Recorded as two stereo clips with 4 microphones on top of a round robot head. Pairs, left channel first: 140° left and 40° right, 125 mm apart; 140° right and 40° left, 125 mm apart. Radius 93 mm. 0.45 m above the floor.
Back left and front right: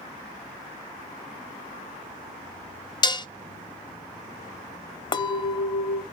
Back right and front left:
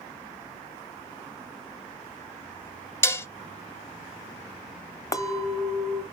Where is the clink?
170° left, 0.7 m.